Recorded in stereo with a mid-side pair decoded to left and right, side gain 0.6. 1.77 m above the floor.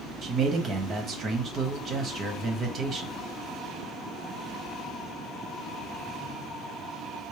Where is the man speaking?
40° right, 1.2 m.